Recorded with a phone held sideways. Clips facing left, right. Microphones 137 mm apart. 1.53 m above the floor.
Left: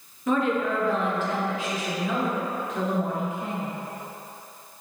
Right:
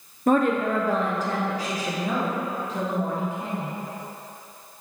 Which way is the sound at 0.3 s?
50° right (ahead or behind).